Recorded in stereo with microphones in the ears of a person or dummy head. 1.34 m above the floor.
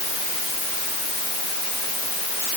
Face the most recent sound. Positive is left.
No sound to turn to.